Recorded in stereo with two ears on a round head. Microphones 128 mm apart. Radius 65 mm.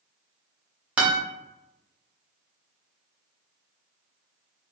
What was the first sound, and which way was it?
A guitar, 10° right (ahead or behind).